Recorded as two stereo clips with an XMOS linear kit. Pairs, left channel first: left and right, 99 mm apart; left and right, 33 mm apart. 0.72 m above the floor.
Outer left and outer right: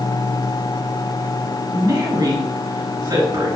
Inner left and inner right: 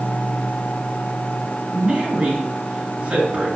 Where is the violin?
I don't hear a violin.